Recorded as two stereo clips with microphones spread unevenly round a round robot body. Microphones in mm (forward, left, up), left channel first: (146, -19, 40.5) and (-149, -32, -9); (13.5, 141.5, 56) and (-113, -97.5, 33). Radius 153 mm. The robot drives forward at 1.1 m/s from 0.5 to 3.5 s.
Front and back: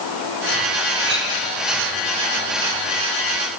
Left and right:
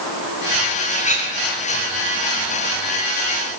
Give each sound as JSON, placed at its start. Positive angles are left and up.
{"t": 0.9, "sound": "a clink", "azimuth_deg": 125, "distance_m": 5.0}